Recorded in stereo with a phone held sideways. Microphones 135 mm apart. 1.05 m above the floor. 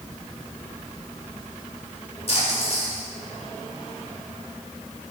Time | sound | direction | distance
2.3 | a splash | 55° left (ahead or behind) | 4 m